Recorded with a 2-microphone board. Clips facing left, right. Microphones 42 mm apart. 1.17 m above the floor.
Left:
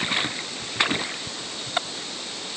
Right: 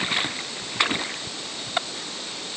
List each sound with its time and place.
Only background noise.